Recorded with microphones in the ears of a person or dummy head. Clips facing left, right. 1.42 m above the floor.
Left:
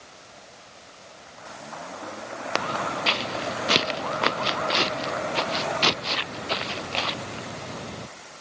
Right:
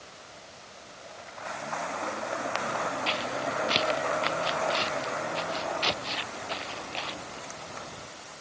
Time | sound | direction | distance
2.5 | footsteps | 65° left (ahead or behind) | ?